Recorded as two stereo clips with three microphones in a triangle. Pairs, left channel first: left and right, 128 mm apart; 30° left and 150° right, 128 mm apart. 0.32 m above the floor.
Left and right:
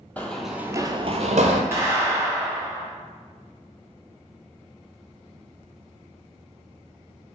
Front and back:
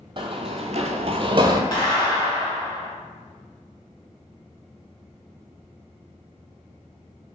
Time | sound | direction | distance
0.2 | running footsteps | 165° left | 0.7 m
1.7 | a clap | 25° right | 1.5 m